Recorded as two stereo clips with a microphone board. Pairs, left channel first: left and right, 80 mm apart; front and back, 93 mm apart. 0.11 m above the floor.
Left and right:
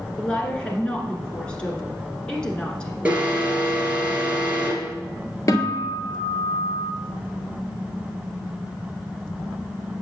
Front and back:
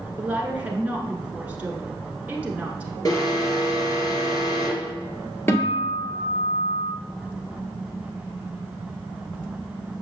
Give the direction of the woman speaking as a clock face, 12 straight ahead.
7 o'clock.